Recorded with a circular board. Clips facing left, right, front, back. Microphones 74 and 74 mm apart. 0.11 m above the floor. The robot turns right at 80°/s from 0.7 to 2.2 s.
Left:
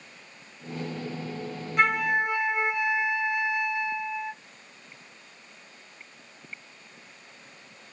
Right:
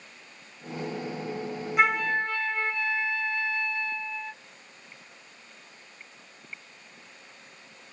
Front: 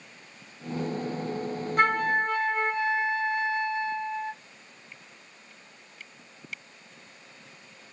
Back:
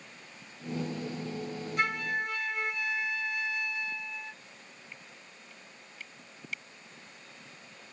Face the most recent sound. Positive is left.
turn(degrees=30)